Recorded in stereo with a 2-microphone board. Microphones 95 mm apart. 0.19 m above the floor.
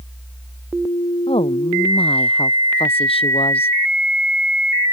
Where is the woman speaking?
80° left.